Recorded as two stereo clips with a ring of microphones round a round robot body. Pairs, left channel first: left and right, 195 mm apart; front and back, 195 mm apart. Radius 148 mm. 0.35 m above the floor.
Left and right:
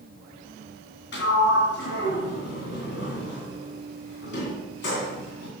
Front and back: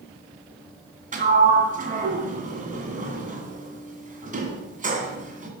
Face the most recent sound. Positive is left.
turn(degrees=130)